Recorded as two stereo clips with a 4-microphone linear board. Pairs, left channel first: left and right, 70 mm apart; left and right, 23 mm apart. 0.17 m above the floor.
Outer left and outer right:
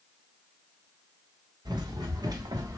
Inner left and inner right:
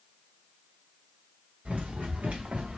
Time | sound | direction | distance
1.6 | running footsteps | 85° right | 1.1 m